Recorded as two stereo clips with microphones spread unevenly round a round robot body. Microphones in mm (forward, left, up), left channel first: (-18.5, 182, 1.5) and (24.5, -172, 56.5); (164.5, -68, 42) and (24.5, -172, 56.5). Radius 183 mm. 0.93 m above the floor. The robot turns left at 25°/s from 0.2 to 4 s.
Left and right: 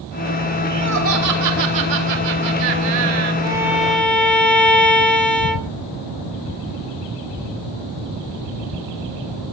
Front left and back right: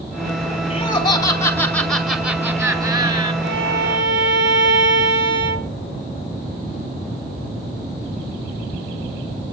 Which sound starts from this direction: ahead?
Laughter, at 0.7 s.